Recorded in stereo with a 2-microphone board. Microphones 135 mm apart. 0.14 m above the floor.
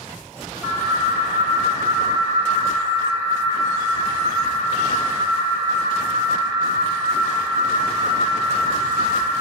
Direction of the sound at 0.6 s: 10° right (ahead or behind).